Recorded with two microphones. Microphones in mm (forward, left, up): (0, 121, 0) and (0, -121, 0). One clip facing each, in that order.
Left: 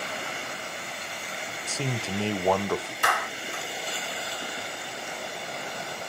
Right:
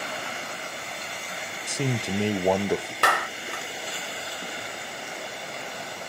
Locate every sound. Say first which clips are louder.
1.7 s a man speaking: right 4 dB; 15° right (ahead or behind), 0.6 m
3.0 s a clap: right 3 dB; 75° right (ahead or behind), 1.2 m